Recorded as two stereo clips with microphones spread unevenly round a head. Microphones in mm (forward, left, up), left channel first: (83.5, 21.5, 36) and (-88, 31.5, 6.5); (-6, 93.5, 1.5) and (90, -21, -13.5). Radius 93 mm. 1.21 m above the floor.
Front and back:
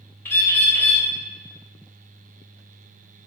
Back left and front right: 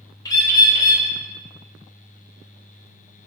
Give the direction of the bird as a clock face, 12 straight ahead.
10 o'clock.